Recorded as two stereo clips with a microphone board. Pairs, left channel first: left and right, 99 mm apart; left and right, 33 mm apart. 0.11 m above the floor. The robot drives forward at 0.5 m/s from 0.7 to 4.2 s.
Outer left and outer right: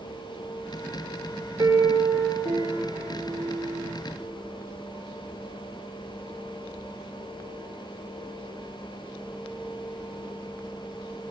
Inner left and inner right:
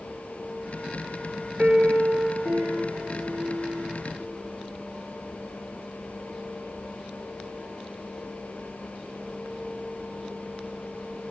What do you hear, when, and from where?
1.6 s a piano: 45° right (ahead or behind), 0.6 m; by 3.9 s 15° right (ahead or behind), 1.5 m